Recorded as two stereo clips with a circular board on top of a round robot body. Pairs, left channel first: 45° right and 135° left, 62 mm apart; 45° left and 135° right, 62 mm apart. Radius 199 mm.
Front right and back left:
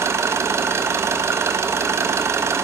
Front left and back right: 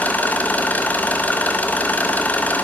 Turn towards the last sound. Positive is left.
turn(degrees=105)